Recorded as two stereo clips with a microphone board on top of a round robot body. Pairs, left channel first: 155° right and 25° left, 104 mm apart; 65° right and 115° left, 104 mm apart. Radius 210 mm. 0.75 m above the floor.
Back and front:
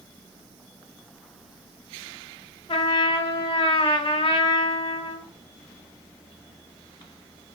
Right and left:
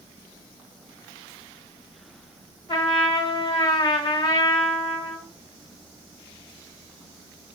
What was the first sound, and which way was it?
A trumpet, 115° right.